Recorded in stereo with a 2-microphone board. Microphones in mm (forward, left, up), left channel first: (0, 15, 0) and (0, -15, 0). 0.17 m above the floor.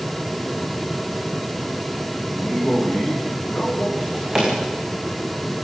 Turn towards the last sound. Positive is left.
turn(degrees=-10)  # may be behind; listen again after turning